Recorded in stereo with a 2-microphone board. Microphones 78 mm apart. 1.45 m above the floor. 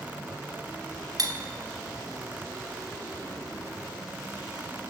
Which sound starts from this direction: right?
Cutlery clinking, at 1.2 s.